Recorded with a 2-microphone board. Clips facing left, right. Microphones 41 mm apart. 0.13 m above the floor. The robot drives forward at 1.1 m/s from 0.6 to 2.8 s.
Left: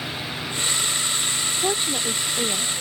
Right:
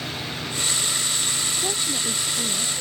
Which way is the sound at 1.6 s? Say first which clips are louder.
Left 3 dB; 40° left (ahead or behind).